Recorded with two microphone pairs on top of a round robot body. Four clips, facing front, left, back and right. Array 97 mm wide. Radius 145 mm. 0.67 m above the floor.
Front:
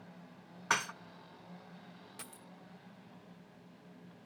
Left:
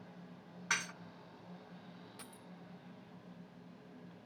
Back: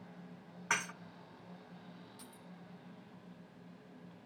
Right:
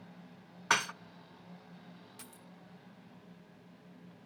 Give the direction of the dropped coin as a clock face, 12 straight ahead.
11 o'clock.